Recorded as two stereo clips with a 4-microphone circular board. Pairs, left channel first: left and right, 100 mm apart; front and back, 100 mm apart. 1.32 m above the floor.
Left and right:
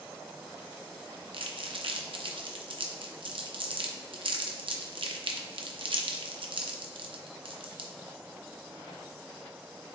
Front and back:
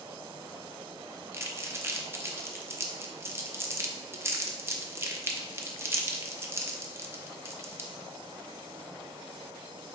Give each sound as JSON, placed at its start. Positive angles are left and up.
{"t": 1.3, "sound": "crumpling", "azimuth_deg": -115, "distance_m": 0.5}